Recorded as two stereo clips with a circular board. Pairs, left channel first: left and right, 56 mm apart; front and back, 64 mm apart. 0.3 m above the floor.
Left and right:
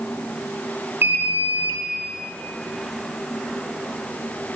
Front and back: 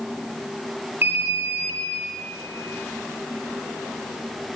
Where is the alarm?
130° right, 1.9 m.